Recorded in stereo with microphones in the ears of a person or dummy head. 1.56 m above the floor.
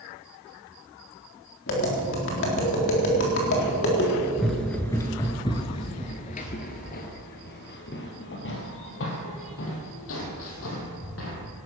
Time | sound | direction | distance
1.7 | tapping | 55° left (ahead or behind) | 4 m
4.4 | running footsteps | centre (ahead or behind) | 1.5 m